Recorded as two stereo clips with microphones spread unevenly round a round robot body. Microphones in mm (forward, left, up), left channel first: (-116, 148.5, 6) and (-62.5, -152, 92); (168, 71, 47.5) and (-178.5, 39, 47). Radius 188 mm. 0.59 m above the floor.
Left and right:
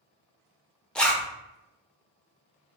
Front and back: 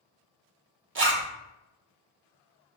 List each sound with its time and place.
0.9 s a zipper: 160° left, 0.8 m